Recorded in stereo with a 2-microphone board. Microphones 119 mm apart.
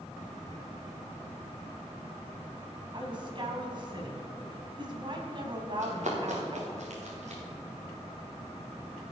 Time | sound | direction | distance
2.9 | a woman speaking | 40° right (ahead or behind) | 2 m
5.8 | running footsteps | 80° right | 4 m